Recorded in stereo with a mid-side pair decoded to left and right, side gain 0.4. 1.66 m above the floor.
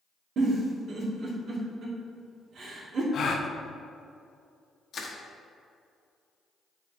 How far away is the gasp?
About 0.8 m.